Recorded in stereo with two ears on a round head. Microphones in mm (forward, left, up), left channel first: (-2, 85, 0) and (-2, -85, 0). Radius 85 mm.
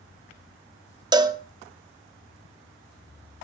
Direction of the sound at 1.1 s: 25° right (ahead or behind).